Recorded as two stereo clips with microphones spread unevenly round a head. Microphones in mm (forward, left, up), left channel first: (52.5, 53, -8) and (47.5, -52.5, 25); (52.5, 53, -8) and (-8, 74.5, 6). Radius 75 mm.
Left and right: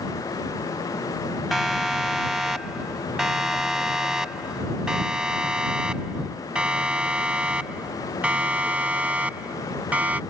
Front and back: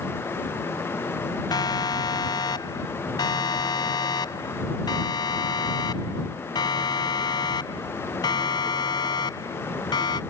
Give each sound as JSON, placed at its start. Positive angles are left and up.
{"t": 1.5, "sound": "a siren", "azimuth_deg": -5}